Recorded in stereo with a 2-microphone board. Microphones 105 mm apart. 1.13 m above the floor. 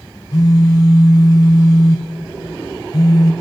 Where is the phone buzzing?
40° left (ahead or behind), 2 m.